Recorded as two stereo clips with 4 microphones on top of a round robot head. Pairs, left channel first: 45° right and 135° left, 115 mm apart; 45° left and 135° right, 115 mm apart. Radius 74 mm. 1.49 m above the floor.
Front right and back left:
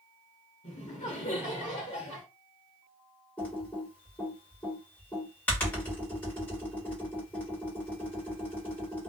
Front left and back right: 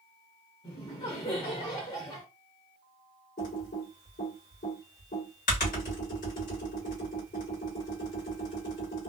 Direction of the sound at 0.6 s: 10° right.